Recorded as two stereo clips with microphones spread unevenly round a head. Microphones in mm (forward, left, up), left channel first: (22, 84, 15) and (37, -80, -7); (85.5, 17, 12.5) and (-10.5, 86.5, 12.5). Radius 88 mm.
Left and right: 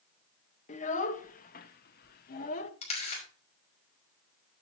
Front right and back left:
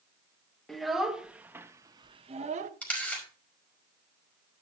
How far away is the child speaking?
About 2 m.